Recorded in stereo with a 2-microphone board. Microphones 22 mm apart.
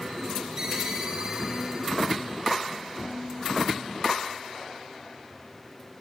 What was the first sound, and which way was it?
A ringtone, 30° right (ahead or behind).